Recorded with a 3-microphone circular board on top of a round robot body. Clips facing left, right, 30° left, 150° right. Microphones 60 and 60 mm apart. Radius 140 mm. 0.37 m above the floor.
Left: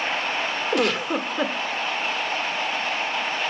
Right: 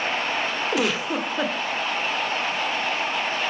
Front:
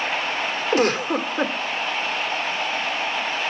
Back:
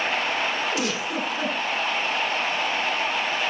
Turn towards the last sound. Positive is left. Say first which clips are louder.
# left 3 dB, front 6 dB
turn(degrees=-5)